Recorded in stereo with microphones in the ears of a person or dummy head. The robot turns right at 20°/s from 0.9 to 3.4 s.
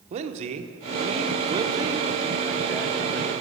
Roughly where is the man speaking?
Ahead right.